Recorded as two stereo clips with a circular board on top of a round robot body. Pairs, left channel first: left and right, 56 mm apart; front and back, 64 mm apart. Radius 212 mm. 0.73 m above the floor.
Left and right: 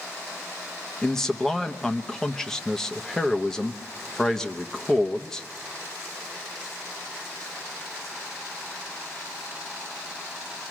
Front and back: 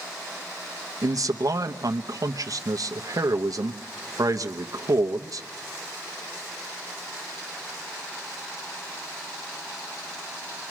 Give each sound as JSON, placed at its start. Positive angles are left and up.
{"t": 1.0, "sound": "a man speaking", "azimuth_deg": 170, "distance_m": 1.2}